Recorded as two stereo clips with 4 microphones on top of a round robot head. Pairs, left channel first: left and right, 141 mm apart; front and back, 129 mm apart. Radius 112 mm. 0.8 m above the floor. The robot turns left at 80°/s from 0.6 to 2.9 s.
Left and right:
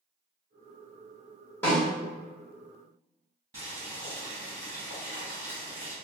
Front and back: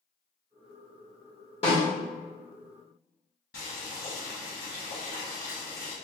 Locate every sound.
1.6 s a snare drum: 20° left, 1.5 m; by 1.9 s straight ahead, 1.5 m
3.5 s boiling: 40° right, 1.5 m